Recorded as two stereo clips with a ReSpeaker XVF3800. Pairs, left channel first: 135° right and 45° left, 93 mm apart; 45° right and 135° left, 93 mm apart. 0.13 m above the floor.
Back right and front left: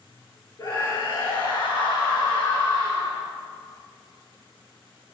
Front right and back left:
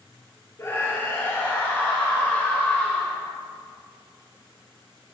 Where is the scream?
95° right, 3 m; by 3.2 s 120° right, 3.5 m.